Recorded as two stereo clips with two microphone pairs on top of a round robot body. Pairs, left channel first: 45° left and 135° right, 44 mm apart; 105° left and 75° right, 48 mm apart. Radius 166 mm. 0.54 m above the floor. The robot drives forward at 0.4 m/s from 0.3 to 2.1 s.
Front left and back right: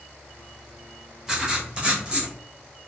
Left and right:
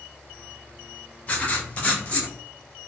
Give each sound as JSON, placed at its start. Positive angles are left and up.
{"t": 1.3, "sound": "writing", "azimuth_deg": 150, "distance_m": 1.0}